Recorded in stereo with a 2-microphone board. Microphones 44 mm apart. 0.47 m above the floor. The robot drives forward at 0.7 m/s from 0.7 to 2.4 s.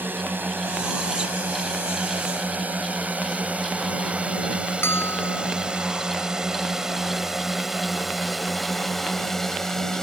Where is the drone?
55° right (ahead or behind); by 10.0 s 10° left (ahead or behind).